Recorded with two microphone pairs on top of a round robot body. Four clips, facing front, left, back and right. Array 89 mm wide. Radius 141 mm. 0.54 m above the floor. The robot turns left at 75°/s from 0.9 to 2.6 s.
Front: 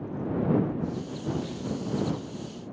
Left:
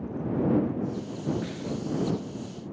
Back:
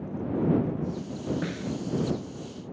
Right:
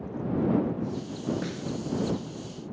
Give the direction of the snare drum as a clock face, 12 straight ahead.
5 o'clock.